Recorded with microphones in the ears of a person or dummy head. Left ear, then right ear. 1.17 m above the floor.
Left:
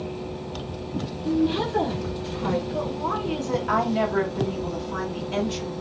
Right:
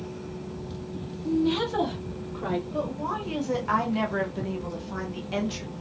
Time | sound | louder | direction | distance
1.2 | a woman speaking | left 1 dB | 35° right (ahead or behind) | 0.6 m
2.7 | a woman speaking | left 3 dB | 10° right (ahead or behind) | 0.6 m